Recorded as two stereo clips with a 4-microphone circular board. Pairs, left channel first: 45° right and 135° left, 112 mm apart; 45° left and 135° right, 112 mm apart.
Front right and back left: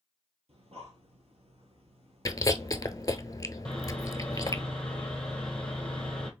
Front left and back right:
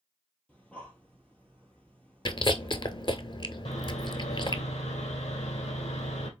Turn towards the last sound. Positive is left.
turn(degrees=40)